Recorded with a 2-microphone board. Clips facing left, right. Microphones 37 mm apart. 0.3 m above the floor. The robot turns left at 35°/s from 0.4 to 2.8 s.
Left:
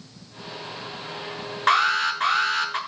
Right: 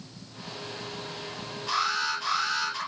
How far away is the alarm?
About 6.5 m.